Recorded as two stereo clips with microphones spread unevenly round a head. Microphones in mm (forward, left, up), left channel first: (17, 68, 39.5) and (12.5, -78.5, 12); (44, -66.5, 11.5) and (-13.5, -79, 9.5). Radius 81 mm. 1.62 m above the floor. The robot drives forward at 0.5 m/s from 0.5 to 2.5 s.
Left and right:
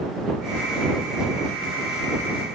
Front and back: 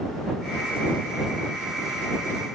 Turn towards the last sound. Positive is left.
No sound to turn to.